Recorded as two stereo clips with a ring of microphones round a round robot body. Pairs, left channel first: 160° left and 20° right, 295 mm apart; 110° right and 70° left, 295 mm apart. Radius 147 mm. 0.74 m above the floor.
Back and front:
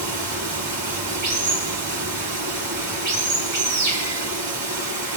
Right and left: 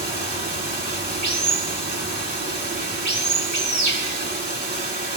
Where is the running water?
5° left, 3.5 m.